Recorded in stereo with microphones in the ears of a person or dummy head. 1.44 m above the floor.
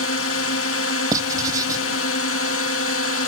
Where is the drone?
70° left (ahead or behind).